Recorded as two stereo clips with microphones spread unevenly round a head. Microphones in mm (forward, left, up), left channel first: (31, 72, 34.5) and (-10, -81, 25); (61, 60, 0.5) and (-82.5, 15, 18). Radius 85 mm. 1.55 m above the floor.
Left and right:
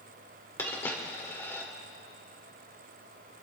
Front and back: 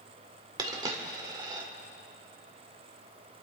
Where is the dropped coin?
145° left, 1.7 m.